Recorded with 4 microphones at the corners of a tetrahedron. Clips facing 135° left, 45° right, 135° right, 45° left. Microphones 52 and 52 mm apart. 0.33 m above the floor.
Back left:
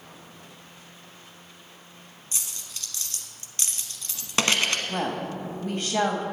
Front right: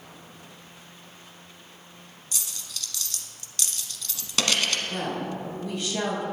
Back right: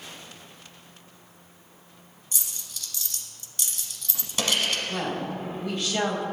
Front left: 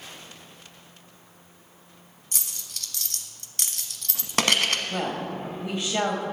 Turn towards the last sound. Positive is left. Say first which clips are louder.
# back left 1 dB, even
turn(degrees=110)